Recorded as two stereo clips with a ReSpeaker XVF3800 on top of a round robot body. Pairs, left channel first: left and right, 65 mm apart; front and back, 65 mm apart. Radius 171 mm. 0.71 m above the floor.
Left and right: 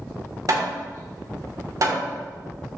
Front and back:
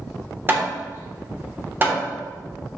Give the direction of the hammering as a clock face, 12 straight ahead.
4 o'clock.